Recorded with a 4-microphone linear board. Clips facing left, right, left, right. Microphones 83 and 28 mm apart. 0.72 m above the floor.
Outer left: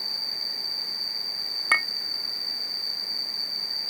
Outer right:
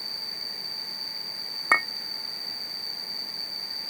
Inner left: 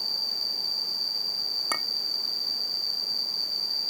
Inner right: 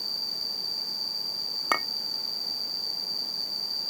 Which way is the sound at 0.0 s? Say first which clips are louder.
Outer left 2 dB, inner left 3 dB; 20° left (ahead or behind).